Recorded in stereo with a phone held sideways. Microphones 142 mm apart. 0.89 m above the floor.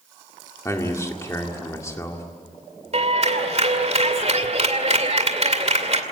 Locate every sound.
0.7 s a man speaking: 20° left (ahead or behind), 1.9 m
2.9 s a clap: 50° right (ahead or behind), 2.5 m